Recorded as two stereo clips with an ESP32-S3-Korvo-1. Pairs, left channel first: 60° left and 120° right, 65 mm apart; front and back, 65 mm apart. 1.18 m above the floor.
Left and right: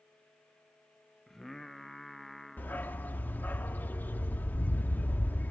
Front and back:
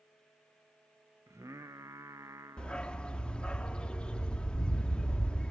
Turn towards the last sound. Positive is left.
turn(degrees=55)